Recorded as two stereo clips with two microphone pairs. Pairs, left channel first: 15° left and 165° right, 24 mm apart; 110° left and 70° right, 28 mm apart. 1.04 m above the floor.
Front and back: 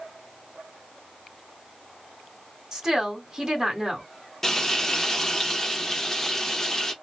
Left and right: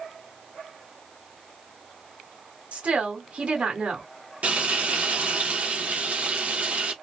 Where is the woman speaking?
95° right, 1.6 m.